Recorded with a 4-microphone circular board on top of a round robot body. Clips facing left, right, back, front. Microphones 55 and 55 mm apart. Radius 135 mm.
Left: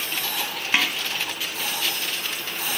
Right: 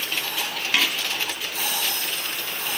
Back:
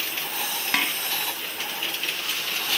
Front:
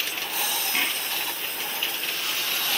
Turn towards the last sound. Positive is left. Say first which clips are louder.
# even, back 3 dB
turn(degrees=160)